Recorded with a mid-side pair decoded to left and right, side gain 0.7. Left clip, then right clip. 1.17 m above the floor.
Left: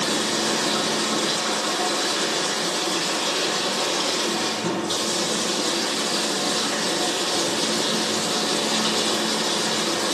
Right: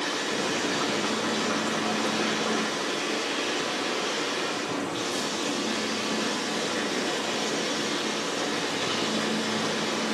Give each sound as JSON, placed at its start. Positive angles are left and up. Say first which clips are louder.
{"t": 0.0, "sound": "running water", "louder": "left 5 dB", "azimuth_deg": 65, "distance_m": 6.0}